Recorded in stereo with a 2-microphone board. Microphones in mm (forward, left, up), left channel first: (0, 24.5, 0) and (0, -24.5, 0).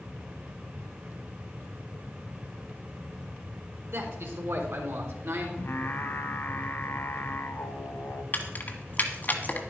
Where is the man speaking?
65° right (ahead or behind), 3 m.